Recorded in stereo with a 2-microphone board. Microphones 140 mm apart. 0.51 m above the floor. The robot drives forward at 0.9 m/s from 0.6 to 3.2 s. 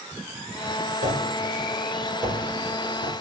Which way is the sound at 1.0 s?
65° right (ahead or behind).